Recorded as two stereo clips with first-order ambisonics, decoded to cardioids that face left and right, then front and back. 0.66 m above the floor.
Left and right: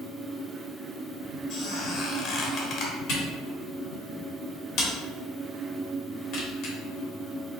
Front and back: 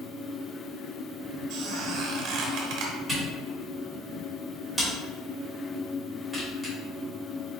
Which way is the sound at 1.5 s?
140° left.